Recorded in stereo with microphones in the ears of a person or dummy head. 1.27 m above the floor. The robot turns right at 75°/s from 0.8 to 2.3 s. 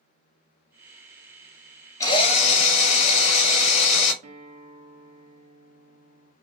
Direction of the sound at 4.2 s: 40° right (ahead or behind).